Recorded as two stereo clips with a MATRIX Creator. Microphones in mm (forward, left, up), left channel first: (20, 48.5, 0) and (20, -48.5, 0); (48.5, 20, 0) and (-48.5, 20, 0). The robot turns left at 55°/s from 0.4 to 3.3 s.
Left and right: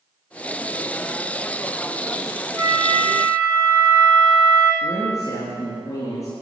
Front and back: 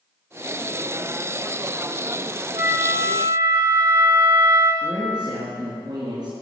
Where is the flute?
135° right, 6 m; by 4.7 s straight behind, 6 m.